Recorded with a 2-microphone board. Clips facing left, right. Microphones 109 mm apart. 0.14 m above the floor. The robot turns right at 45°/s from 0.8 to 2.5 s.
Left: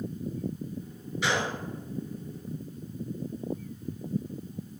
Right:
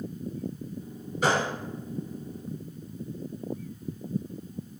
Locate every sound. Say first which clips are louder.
1.2 s a gunshot: right 4 dB; 45° right (ahead or behind), 1.7 m; by 1.5 s 35° right (ahead or behind), 1.7 m